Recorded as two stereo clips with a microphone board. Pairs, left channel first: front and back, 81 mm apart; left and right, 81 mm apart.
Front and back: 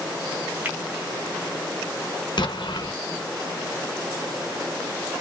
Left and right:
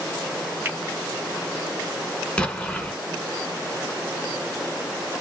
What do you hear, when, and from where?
0.7 s a finger snap: 135° right, 1.2 m
2.4 s an explosion: 15° left, 0.7 m